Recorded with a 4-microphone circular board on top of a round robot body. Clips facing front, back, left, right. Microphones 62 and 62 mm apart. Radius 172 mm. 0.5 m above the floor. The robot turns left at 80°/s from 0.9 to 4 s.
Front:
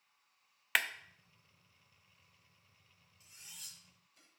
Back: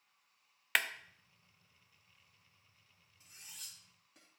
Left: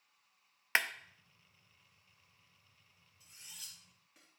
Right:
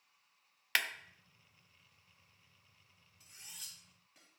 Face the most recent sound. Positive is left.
turn(degrees=175)